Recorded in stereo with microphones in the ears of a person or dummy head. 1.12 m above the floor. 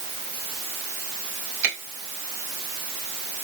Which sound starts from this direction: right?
A finger snap, at 1.6 s.